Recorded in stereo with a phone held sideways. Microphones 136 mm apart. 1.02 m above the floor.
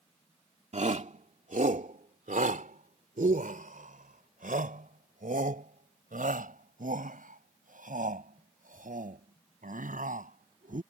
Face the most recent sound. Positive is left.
turn(degrees=-80)